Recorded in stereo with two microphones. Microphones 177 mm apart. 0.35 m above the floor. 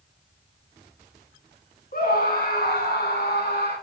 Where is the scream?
55° left (ahead or behind), 3.5 m; by 3.7 s 70° left (ahead or behind), 3.5 m.